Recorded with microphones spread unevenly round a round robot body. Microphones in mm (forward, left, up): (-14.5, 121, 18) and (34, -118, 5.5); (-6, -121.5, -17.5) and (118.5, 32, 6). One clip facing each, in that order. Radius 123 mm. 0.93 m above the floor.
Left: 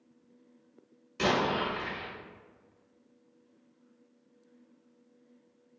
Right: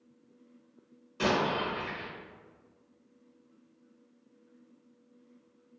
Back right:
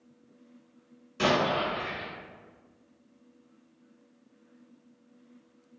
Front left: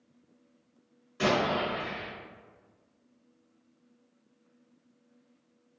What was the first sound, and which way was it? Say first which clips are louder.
An explosion: even, back right 1 dB; 160° left.